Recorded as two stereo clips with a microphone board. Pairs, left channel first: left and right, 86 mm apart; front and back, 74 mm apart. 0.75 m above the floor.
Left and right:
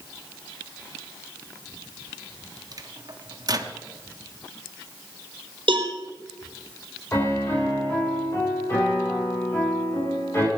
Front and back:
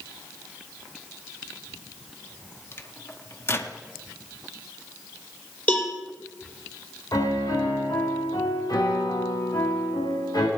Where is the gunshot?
I don't hear a gunshot.